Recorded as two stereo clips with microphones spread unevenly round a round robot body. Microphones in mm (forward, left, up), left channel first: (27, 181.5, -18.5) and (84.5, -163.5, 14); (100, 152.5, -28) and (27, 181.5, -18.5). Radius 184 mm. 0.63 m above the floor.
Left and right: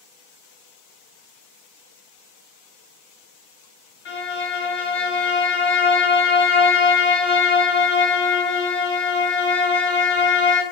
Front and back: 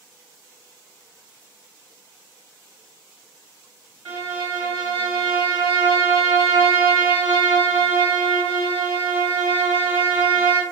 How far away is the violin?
About 1.5 m.